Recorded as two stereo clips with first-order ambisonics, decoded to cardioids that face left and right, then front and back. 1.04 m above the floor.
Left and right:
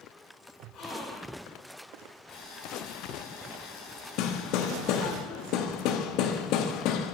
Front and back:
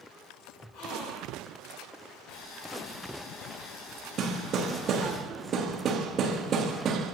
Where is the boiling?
50° left, 4.5 m.